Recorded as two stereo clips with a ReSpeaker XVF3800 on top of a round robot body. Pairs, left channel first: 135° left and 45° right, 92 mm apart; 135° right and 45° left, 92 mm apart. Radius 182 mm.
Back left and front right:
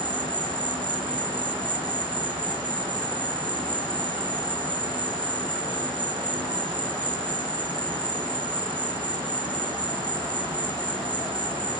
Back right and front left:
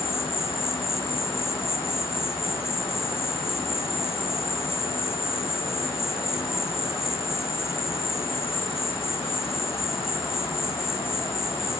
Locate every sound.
0.0 s an insect: 75° right, 0.9 m